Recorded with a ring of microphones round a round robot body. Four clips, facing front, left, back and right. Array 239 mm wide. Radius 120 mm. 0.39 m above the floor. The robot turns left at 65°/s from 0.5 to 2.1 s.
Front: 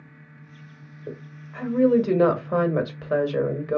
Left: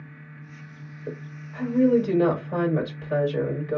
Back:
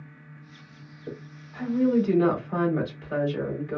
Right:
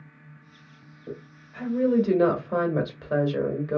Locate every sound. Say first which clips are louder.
1.1 s a woman speaking: left 3 dB, front 2 dB; 60° left, 1.5 m; by 3.8 s 10° right, 1.5 m